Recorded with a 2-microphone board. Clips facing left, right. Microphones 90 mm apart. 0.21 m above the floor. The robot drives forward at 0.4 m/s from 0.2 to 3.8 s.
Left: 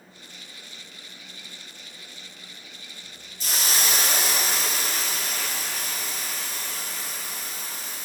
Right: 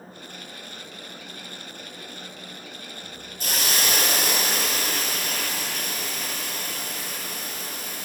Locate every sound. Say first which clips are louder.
3.4 s a hiss: right 1 dB; 60° right (ahead or behind), 2 m